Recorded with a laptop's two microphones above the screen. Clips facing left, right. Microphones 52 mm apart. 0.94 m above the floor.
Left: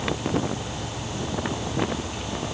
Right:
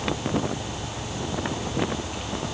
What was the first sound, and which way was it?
Only background noise.